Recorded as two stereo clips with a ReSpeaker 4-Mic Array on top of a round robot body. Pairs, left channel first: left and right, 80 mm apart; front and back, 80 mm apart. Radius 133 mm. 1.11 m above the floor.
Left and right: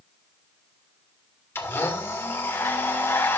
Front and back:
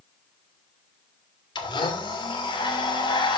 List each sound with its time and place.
1.6 s a blender: 30° left, 3 m